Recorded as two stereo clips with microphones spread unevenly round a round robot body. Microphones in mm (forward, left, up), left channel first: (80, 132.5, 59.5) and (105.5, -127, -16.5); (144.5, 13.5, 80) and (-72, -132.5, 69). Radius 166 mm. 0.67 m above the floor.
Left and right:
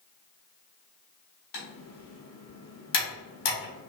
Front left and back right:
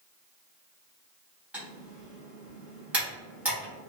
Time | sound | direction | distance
1.5 | typing on a keyboard | 130° left | 1.3 m